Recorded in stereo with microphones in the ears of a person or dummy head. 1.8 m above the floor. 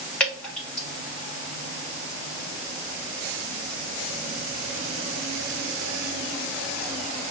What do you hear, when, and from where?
0.2 s dripping: 10° left (ahead or behind), 3 m